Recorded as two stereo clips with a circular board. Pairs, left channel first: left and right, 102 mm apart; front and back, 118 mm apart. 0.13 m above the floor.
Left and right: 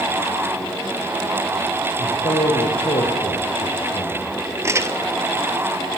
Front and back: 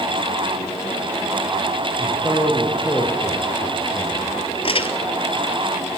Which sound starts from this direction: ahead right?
Crumpling, at 4.6 s.